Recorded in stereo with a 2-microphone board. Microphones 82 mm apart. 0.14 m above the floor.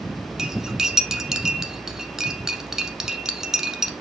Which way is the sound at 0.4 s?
5° right (ahead or behind).